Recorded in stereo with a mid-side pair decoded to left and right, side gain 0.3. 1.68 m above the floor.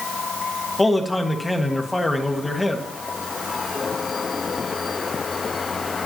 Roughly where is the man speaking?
Ahead left.